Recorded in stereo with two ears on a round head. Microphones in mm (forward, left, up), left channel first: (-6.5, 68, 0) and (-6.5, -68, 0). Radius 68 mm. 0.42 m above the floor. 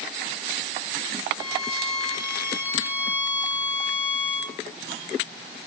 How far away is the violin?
About 4 m.